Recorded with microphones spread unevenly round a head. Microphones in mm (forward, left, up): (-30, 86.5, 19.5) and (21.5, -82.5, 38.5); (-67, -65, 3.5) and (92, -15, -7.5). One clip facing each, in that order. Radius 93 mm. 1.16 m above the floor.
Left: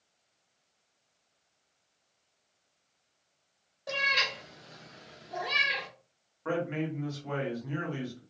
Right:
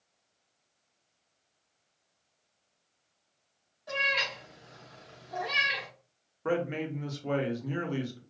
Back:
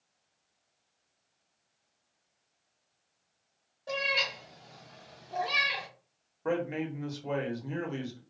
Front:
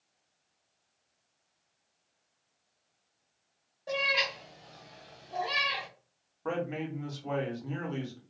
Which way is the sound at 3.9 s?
105° left.